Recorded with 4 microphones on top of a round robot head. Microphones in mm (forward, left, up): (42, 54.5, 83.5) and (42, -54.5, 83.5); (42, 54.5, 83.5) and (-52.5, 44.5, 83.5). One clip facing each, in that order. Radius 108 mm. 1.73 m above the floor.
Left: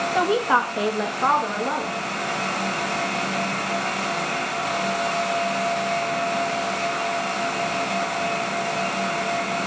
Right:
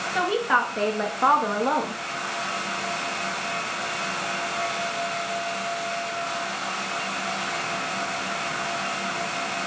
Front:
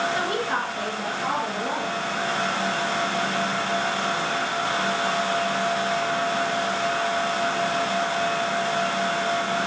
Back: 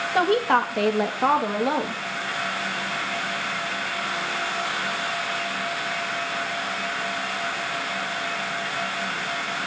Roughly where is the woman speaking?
Behind left.